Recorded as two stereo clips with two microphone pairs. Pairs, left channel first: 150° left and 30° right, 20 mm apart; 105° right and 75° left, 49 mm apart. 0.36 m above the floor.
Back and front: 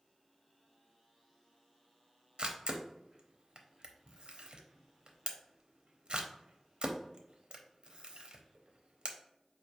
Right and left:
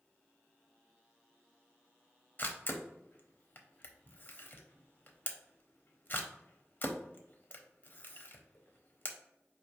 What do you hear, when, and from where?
2.4 s a camera shutter: 55° right, 0.7 m